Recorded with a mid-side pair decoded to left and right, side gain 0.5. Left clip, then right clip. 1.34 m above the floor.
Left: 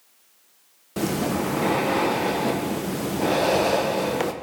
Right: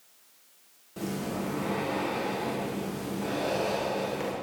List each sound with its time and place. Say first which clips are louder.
1.0 s breathing: left 9 dB; 65° left, 1.2 m